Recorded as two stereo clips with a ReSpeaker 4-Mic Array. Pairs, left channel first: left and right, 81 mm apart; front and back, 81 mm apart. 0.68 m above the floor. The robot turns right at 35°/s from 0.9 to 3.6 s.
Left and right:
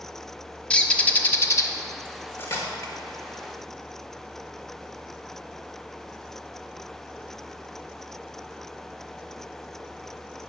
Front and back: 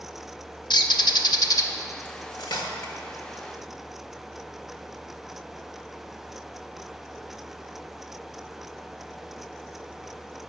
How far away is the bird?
About 0.6 m.